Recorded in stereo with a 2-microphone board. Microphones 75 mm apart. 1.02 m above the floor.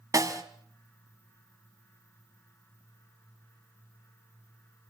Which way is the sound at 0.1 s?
50° right (ahead or behind).